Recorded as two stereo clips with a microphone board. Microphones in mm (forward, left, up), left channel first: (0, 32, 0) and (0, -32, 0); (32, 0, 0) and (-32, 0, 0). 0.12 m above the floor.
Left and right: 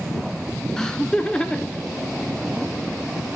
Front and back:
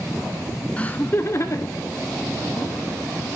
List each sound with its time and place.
0.8 s laughter: 25° left, 1.0 m; by 2.7 s 15° left, 2.5 m